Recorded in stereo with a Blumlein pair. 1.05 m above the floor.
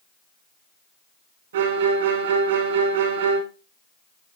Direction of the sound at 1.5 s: 60° right.